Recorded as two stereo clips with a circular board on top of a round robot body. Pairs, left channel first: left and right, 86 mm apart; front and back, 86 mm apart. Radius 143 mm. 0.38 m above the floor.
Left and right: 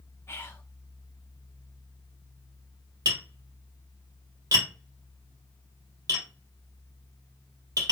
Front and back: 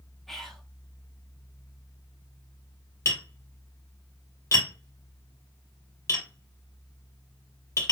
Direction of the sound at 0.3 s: 85° left.